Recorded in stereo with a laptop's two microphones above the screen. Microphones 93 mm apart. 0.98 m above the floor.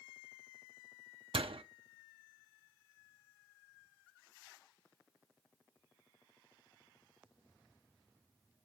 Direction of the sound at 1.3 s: 80° right.